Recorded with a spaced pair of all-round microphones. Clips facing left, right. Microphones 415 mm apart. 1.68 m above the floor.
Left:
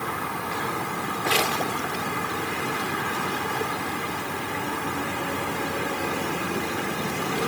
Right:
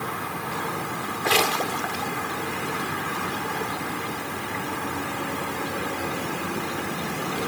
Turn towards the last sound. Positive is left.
No sound to turn to.